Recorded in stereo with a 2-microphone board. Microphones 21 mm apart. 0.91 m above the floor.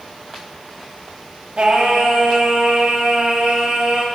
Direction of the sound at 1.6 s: 60° right (ahead or behind).